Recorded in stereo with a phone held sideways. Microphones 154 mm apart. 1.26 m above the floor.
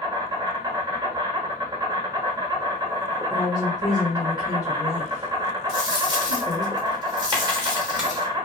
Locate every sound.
0.0 s an insect: 25° right (ahead or behind), 1.0 m
3.3 s a woman speaking: 25° left (ahead or behind), 1.3 m
5.7 s a dropped coin: 25° right (ahead or behind), 1.2 m